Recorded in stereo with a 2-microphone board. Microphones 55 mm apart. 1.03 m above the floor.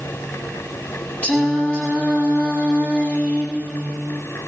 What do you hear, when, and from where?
1.2 s singing: 30° left (ahead or behind), 6 m